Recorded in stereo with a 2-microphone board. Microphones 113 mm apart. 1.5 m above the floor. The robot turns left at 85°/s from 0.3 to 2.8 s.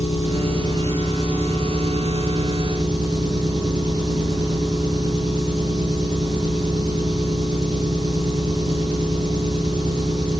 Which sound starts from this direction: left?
An engine running, at 0.0 s.